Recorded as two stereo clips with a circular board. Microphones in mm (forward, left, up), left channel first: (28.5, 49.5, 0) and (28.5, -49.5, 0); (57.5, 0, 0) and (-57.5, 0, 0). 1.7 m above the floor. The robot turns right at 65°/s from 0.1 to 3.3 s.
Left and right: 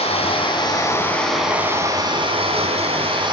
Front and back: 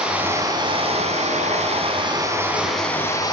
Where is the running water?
100° left, 6 m; by 3.3 s 55° right, 6 m.